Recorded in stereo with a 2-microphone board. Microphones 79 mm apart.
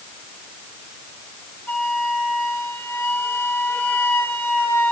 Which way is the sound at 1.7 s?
25° left (ahead or behind).